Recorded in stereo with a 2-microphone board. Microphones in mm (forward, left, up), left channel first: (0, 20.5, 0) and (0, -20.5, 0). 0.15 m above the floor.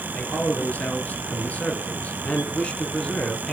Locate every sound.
0.1 s a man speaking: 35° left (ahead or behind), 2.5 m; by 3.5 s 15° left (ahead or behind), 1.3 m